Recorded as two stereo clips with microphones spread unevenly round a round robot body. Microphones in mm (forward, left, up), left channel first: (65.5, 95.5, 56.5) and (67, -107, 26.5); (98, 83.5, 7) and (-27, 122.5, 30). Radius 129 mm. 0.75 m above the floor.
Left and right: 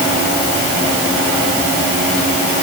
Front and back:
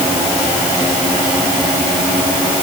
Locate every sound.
Only background noise.